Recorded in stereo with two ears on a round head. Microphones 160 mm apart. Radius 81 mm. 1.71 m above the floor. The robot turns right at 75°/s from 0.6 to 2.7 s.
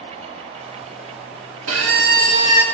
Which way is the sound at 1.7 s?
85° right.